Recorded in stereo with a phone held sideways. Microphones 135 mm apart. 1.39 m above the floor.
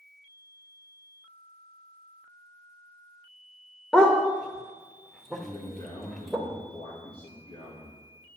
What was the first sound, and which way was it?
A dog barking, 5° left (ahead or behind).